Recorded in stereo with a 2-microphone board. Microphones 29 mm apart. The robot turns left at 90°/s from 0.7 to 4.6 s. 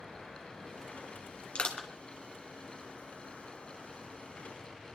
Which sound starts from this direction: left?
Crushing, at 1.6 s.